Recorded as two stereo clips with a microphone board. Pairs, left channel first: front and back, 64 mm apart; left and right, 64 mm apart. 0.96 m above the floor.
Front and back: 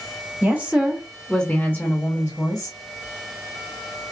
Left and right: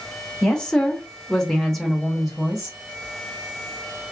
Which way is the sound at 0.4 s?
155° left.